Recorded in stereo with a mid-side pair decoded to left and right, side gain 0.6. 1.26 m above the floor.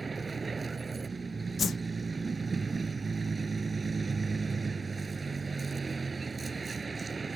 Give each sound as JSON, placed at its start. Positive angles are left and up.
{"t": 0.0, "sound": "a vehicle", "azimuth_deg": -20}
{"t": 1.6, "sound": "a whoosh", "azimuth_deg": 35}